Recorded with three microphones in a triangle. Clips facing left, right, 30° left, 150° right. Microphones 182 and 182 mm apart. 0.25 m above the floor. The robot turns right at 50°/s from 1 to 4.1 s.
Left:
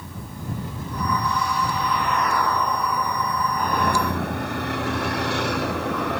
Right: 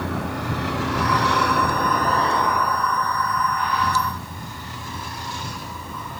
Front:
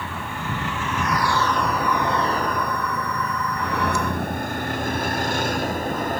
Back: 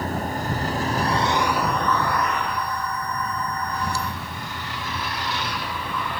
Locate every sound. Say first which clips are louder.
0.0 s a vehicle: right 9 dB, back 5 dB; 100° right; by 6.2 s 75° left